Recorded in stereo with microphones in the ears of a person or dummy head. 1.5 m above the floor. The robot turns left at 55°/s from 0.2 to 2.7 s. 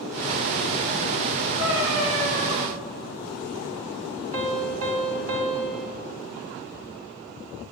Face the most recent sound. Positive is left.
turn(degrees=-45)  # may be behind; listen again after turning